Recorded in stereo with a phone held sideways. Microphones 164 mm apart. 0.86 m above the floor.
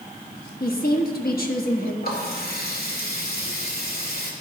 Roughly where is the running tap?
Left.